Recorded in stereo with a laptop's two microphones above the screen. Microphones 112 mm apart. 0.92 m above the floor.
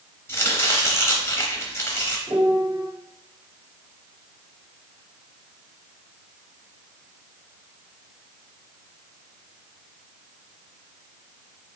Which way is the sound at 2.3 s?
45° right (ahead or behind).